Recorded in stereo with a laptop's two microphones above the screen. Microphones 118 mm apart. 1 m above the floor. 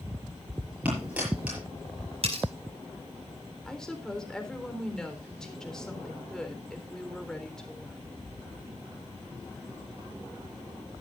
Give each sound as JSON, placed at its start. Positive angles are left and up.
{"t": 0.8, "sound": "a dropped coin", "side_deg": -10, "distance_m": 7.0}
{"t": 2.2, "sound": "cutlery clinking", "side_deg": -60, "distance_m": 4.5}
{"t": 3.6, "sound": "a woman speaking", "side_deg": 5, "distance_m": 3.5}